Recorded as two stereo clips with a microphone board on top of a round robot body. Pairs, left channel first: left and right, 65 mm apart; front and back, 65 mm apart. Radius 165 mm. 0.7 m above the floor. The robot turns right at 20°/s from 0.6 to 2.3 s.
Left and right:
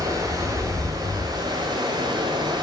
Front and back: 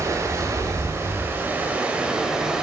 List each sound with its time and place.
0.0 s running water: 135° right, 1.4 m; by 2.6 s 100° right, 1.4 m